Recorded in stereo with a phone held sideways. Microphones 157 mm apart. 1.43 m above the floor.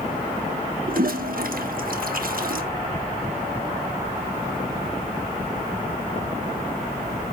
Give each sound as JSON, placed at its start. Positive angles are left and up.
{"t": 0.9, "sound": "a toilet flushing", "side_deg": -65, "distance_m": 1.4}